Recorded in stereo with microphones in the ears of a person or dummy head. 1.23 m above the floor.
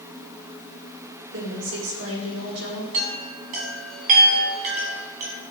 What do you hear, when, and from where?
1.3 s a woman speaking: 75° right (ahead or behind), 3 m
2.9 s a chime: 45° right (ahead or behind), 2.5 m